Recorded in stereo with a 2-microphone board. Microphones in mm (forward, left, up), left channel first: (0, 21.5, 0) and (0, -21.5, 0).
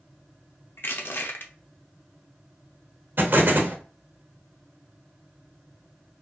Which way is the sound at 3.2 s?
55° right (ahead or behind).